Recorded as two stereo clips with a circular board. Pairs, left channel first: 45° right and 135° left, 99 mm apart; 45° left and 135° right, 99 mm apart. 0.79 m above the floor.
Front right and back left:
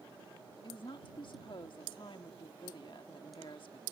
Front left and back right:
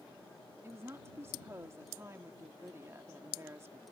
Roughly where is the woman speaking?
Right.